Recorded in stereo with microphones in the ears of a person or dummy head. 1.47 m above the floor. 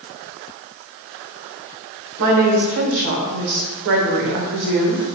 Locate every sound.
2.2 s a woman speaking: 65° right (ahead or behind), 0.7 m